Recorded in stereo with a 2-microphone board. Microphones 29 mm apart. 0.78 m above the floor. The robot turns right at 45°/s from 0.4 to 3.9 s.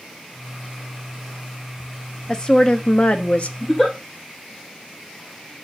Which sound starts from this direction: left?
A giggle, at 3.6 s.